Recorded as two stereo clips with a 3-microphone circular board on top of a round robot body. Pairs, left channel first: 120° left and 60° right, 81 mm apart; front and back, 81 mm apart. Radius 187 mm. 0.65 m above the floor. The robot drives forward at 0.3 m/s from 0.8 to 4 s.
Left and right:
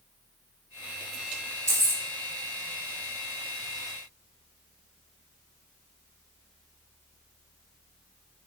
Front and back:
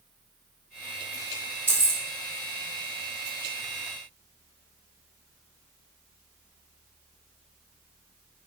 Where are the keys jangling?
115° right, 0.8 m; by 2.0 s 125° right, 0.8 m.